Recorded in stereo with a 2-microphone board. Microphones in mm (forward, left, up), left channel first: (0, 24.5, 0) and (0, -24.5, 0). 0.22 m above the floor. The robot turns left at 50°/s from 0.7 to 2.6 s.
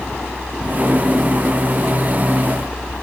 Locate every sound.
Only background noise.